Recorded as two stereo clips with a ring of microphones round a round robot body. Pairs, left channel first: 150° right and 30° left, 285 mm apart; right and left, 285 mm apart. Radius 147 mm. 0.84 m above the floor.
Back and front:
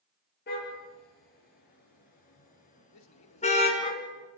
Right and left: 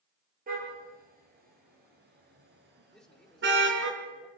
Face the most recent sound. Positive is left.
turn(degrees=180)